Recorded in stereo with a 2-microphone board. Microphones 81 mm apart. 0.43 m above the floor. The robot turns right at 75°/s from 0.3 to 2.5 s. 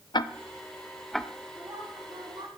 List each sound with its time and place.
0.1 s ticking: 65° left (ahead or behind), 0.6 m; by 1.3 s 5° right (ahead or behind), 0.6 m
1.6 s a woman speaking: 145° right, 3.5 m; by 2.5 s 75° right, 3.5 m